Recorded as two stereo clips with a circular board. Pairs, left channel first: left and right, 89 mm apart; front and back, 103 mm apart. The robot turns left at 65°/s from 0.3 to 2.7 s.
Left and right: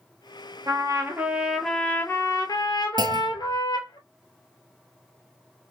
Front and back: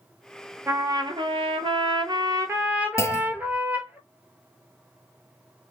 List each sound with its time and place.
0.7 s a trumpet: 120° right, 0.9 m; by 4.0 s 110° left, 0.9 m
3.0 s a clunk: 60° right, 0.6 m